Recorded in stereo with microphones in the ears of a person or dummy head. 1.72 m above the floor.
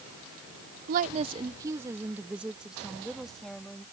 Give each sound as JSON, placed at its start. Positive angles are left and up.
{"t": 0.9, "sound": "a woman speaking", "side_deg": -45}